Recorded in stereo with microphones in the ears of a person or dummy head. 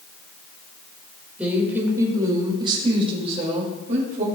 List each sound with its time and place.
1.4 s a woman speaking: 5° right (ahead or behind), 1.9 m; by 4.2 s 40° right (ahead or behind), 2.5 m